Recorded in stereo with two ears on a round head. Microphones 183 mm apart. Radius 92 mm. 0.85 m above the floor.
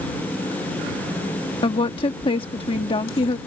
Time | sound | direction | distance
1.6 | a woman speaking | 25° left (ahead or behind) | ?